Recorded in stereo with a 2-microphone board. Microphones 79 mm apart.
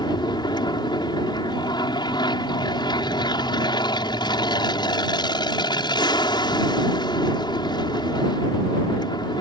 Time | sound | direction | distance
0.0 | an aircraft | 65° left (ahead or behind) | ?